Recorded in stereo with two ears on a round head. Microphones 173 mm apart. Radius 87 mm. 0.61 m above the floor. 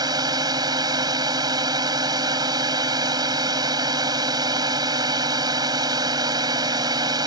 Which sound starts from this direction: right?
A drone, at 0.0 s.